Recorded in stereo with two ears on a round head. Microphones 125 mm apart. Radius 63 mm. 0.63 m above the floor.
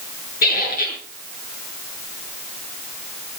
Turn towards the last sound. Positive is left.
turn(degrees=70)  # may be behind; listen again after turning